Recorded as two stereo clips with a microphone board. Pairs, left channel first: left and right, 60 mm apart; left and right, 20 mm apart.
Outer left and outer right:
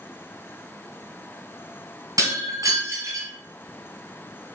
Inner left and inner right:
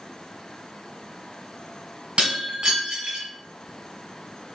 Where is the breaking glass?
75° right (ahead or behind), 1.6 m.